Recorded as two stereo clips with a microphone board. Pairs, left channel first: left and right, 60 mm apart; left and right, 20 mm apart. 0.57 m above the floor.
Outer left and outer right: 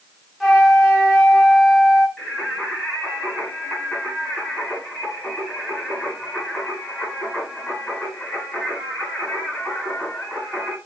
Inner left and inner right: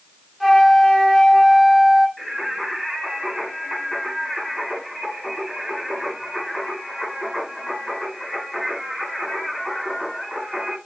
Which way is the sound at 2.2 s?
5° left (ahead or behind).